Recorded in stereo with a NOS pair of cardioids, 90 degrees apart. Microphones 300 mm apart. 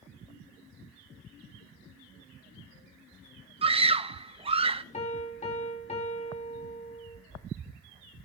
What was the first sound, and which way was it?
A scream, 20° right.